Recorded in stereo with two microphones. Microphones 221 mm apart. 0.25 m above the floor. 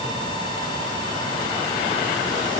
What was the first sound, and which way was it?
Only background noise.